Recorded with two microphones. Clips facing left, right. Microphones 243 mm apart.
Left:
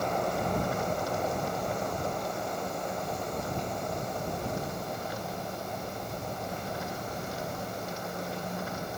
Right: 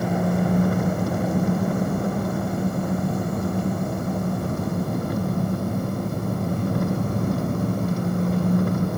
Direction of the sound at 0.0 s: 60° right (ahead or behind).